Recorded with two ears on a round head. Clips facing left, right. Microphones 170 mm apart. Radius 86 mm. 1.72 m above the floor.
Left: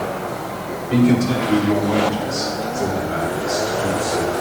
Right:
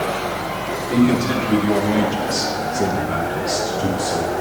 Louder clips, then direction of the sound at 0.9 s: Left 1 dB; centre (ahead or behind).